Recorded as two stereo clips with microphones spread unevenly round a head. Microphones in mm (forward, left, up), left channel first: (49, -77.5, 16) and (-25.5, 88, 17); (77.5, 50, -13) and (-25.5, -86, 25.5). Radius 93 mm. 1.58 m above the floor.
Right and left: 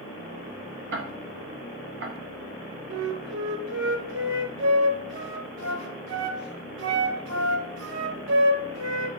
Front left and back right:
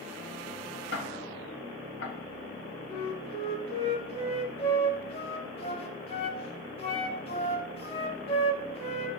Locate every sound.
0.9 s ticking: 90° left, 1.2 m
2.9 s a flute: 120° left, 1.2 m